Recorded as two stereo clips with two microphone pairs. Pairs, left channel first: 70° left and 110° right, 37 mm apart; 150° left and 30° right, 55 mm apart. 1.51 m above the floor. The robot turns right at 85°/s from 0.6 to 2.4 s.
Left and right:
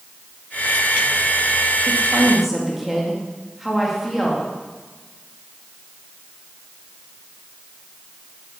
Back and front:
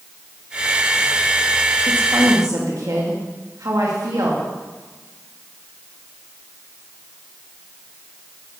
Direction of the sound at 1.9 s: 75° right.